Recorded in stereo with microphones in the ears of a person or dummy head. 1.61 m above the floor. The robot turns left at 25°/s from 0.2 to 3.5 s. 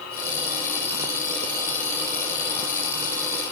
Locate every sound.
Only background noise.